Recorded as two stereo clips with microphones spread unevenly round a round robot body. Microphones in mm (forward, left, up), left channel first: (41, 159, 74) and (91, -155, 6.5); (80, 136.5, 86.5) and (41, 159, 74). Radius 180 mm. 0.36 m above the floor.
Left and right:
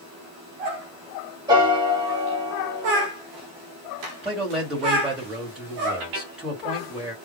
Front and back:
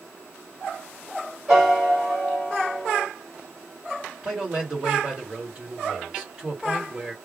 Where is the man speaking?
160° right, 2.0 m.